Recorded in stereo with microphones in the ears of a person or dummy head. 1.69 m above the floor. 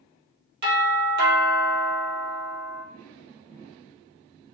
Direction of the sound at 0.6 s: 60° right (ahead or behind).